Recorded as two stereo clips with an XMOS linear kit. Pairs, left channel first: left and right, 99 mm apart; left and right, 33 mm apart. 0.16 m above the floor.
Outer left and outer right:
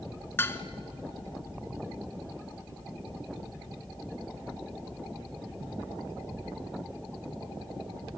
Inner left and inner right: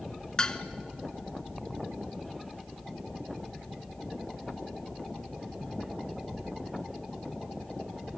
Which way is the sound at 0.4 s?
25° left (ahead or behind).